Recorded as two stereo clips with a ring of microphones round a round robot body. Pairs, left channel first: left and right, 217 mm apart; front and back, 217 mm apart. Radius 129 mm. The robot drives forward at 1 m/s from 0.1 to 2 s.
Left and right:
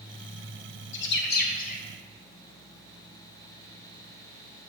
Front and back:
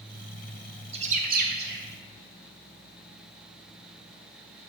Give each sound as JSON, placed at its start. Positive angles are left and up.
{"t": 0.9, "sound": "a bird", "azimuth_deg": 115, "distance_m": 1.2}